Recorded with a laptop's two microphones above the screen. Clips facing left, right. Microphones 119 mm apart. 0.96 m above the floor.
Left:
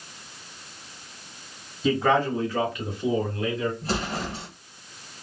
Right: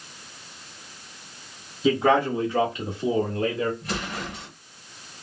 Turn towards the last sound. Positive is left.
turn(degrees=30)  # may be behind; listen again after turning